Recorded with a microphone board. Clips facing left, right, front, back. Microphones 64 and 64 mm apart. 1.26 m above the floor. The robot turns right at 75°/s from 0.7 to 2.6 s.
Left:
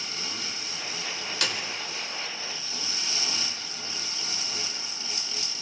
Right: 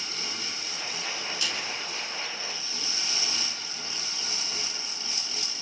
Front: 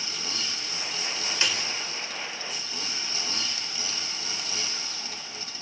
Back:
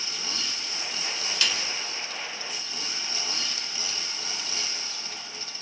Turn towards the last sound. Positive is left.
turn(degrees=155)